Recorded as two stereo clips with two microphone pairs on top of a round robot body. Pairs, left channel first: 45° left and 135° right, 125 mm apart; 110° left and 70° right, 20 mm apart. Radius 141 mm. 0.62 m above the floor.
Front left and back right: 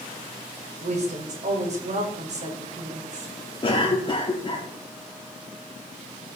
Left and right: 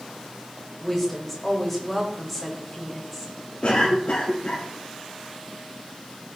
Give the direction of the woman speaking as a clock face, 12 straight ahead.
5 o'clock.